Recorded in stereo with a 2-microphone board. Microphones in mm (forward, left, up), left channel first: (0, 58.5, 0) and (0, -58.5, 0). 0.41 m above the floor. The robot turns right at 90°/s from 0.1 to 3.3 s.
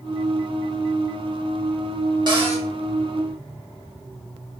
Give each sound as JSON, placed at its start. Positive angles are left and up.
{"t": 2.3, "sound": "a cupboard door", "azimuth_deg": -135, "distance_m": 0.7}